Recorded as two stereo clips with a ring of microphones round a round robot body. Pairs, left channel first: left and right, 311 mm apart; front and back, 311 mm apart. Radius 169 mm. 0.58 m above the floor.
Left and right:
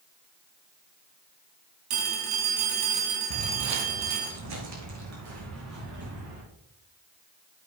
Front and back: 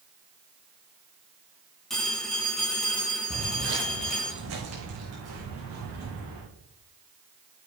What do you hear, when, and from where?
1.9 s a phone ringing: 90° right, 3.5 m
3.3 s footsteps: 110° right, 0.8 m; by 6.4 s 130° right, 5.5 m